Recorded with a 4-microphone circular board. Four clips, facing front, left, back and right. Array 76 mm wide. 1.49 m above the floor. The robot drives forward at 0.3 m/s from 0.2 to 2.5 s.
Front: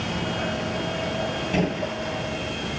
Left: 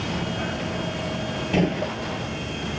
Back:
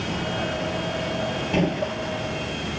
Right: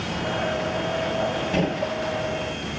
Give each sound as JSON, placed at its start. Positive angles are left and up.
{"t": 1.5, "sound": "a gunshot", "azimuth_deg": 120, "distance_m": 1.7}